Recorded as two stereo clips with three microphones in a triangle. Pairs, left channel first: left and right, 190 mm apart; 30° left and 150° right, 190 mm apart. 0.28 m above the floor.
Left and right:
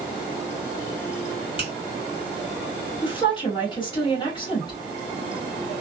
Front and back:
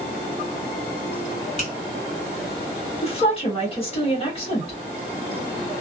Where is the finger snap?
45° left, 1.7 m.